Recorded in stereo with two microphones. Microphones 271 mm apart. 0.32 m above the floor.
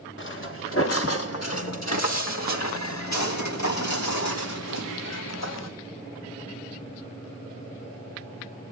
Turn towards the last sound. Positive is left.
turn(degrees=75)  # may be behind; listen again after turning